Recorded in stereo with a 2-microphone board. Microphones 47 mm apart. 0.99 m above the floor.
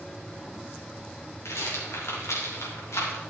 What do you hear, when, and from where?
1.4 s a rattle: 85° left, 3 m